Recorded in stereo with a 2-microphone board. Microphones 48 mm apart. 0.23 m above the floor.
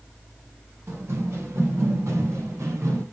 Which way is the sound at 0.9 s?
60° right (ahead or behind).